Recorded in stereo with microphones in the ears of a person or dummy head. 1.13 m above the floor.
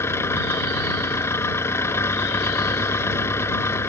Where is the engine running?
10° left (ahead or behind).